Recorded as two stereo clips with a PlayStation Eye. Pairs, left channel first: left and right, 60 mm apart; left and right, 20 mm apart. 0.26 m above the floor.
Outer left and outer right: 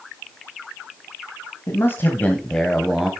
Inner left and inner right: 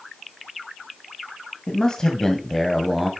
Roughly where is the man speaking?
Left.